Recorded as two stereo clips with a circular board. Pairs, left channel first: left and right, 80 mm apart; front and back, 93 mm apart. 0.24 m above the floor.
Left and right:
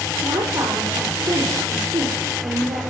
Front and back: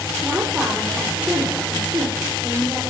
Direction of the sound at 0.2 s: 105° right.